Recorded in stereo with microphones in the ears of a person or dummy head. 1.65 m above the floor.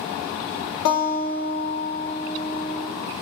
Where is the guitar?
65° left (ahead or behind), 1.1 m.